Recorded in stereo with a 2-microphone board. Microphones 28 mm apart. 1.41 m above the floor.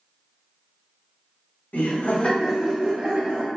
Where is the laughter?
75° left (ahead or behind), 0.7 m; by 3.5 s 30° right (ahead or behind), 1.2 m.